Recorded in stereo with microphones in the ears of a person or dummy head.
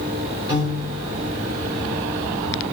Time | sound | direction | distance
0.5 | a piano | 25° right (ahead or behind) | 1.6 m